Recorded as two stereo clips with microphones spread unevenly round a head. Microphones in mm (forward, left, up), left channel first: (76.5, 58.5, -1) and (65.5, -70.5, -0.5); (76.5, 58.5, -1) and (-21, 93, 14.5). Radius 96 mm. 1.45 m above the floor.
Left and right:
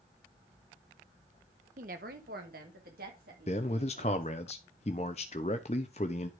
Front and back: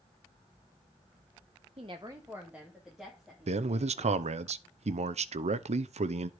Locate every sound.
1.8 s a woman speaking: 145° right, 0.7 m; by 4.3 s 105° right, 4 m
3.5 s a man speaking: 145° left, 0.7 m